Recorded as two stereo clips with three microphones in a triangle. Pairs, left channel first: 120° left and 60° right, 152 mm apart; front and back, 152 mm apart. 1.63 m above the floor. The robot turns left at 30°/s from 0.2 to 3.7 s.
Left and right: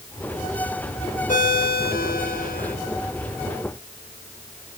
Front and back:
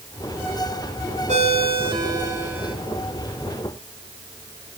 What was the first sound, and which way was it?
A ringtone, 140° left.